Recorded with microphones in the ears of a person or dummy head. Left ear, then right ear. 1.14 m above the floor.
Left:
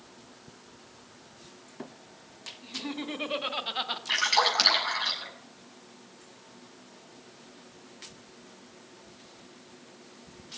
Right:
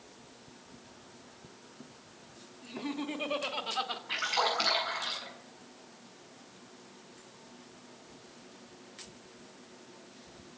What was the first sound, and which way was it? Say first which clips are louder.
Laughter: left 1 dB; 5° left (ahead or behind).